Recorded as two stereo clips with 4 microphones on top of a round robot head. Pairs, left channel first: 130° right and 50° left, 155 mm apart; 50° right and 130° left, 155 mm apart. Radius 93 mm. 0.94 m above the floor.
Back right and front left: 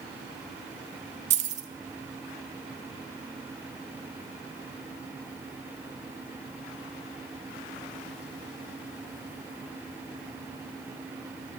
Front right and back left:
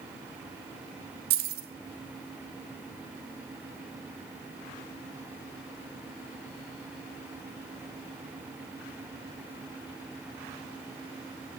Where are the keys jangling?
100° left, 0.8 m.